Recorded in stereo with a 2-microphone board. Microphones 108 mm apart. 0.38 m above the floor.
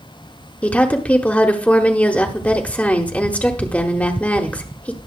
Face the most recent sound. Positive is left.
turn(degrees=15)  # may be behind; listen again after turning